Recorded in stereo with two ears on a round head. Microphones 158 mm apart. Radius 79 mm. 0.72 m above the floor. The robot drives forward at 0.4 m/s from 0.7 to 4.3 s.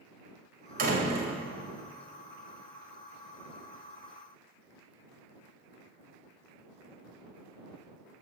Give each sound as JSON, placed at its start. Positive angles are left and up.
{"t": 0.8, "sound": "a door slam", "side_deg": -55, "distance_m": 3.0}